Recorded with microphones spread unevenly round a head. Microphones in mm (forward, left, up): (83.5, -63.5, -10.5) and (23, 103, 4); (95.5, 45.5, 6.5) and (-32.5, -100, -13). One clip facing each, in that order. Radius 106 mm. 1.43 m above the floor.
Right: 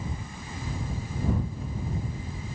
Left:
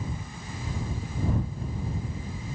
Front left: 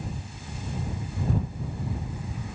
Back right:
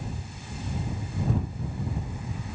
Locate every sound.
Only background noise.